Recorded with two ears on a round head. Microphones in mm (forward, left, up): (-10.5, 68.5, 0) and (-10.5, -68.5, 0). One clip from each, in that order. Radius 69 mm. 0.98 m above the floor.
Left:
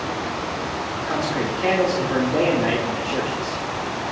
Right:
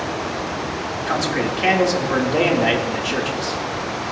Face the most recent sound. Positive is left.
turn(degrees=-55)  # may be behind; listen again after turning